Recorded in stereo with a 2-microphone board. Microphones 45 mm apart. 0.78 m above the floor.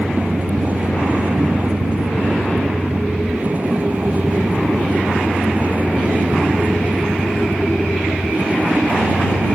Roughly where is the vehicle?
Right.